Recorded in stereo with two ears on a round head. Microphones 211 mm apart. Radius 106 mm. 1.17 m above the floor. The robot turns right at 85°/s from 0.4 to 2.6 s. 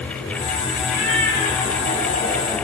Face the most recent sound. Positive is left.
turn(degrees=-75)